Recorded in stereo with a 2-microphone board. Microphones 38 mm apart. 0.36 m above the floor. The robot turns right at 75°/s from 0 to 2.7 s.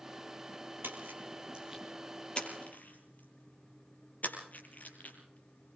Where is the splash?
85° right, 5 m; by 5.8 s 55° left (ahead or behind), 5 m.